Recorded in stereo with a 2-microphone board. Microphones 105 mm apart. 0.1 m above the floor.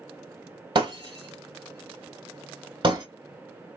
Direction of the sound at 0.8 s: 50° right (ahead or behind).